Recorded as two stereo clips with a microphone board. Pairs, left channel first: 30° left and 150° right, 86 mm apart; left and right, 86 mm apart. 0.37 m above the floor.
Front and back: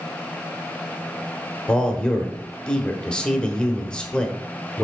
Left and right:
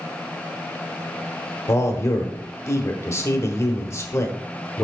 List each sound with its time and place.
1.7 s a man speaking: 100° left, 1.1 m